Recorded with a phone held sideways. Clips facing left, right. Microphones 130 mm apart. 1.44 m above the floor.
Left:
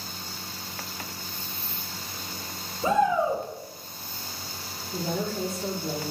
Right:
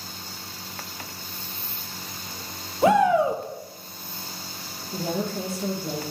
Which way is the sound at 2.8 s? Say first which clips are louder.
Right 5 dB; 80° right.